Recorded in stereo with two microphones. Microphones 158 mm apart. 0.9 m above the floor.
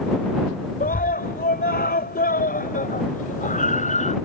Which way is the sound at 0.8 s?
70° left (ahead or behind).